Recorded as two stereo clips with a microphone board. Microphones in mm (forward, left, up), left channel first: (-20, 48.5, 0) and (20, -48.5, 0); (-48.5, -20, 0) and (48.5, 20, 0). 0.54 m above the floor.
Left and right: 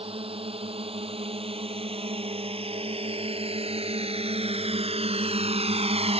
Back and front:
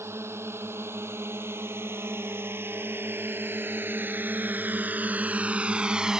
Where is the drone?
45° right; by 6.2 s 60° right.